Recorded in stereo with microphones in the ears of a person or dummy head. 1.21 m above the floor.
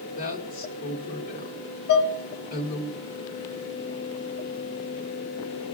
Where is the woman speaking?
35° left (ahead or behind), 1.2 m.